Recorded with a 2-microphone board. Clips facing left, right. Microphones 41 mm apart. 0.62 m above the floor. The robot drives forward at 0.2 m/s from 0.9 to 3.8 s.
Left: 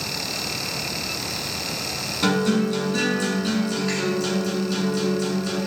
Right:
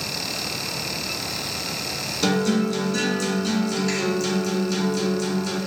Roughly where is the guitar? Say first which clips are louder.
Left 1 dB; centre.